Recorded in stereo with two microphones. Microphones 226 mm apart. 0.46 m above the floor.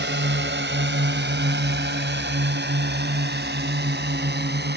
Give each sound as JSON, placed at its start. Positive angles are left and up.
{"t": 0.0, "sound": "a drone", "side_deg": -55}